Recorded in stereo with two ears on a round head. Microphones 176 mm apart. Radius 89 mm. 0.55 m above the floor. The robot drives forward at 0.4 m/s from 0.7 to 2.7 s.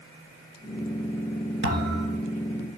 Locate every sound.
1.6 s a thud: 65° right (ahead or behind), 3 m; by 2.2 s 60° right (ahead or behind), 3.5 m